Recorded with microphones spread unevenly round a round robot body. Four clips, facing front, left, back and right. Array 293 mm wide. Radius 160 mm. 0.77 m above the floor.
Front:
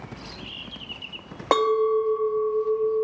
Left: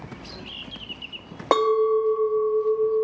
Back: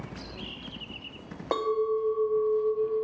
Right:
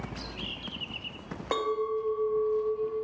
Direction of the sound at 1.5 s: 30° left.